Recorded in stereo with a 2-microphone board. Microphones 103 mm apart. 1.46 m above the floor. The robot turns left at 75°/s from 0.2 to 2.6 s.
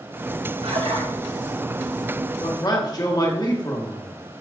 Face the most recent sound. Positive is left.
turn(degrees=40)  # may be behind; listen again after turning